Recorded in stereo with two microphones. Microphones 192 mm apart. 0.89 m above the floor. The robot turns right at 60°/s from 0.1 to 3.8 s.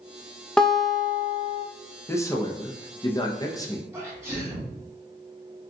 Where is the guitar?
5° left (ahead or behind), 0.5 m; by 1.6 s 15° right (ahead or behind), 0.5 m.